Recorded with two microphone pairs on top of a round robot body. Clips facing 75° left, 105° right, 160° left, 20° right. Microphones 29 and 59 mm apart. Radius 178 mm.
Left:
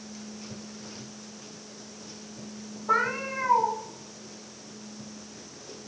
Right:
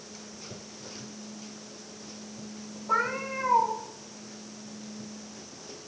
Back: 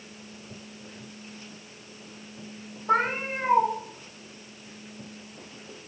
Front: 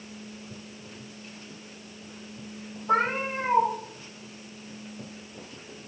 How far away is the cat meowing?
About 1.1 m.